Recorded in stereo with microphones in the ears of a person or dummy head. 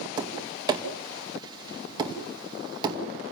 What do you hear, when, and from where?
0.2 s tapping: 20° right (ahead or behind), 2.5 m